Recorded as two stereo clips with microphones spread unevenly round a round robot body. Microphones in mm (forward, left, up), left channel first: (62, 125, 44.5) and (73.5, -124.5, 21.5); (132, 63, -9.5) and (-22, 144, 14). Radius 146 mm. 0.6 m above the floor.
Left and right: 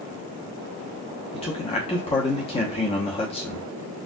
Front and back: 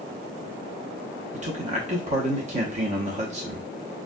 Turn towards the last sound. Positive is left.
turn(degrees=150)